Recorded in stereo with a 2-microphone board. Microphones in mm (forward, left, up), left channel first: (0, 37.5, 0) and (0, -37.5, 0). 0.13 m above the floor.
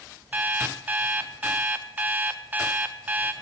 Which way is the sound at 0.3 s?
25° right (ahead or behind).